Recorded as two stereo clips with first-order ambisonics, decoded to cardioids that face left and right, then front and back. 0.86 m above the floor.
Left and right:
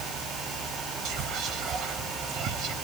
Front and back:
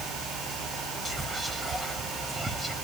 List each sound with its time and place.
1.1 s whispering: 105° right, 1.3 m